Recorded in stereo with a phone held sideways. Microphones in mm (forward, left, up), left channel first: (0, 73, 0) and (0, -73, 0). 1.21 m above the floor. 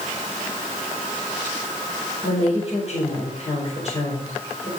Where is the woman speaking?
45° left (ahead or behind), 4.5 m.